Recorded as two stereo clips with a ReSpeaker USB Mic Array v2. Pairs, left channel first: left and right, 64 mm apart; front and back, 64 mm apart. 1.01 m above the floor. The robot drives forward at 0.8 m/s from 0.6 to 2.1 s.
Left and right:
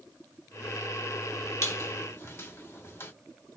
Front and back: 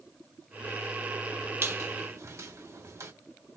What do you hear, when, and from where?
1.6 s a squeak: 130° left, 1.6 m; by 3.1 s 140° left, 1.9 m